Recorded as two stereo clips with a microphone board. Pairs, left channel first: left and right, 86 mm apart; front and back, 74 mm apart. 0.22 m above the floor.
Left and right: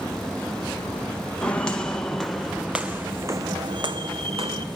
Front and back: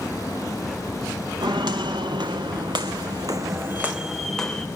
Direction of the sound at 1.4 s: 170° left.